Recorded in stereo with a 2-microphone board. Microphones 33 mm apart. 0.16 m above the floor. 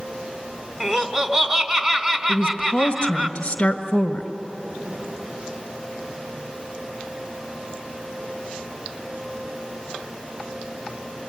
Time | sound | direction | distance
0.8 | laughter | 20° right (ahead or behind) | 1.6 m
2.3 | a woman speaking | 30° left (ahead or behind) | 1.4 m